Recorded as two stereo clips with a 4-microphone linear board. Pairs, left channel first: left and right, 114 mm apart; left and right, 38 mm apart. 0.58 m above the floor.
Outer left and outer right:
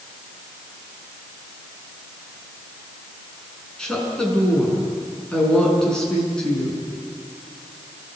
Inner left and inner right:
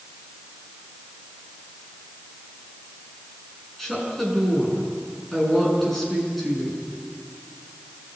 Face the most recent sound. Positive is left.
turn(degrees=5)  # may be behind; listen again after turning